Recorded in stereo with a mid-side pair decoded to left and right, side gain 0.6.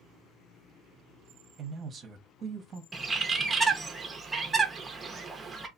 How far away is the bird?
About 0.8 m.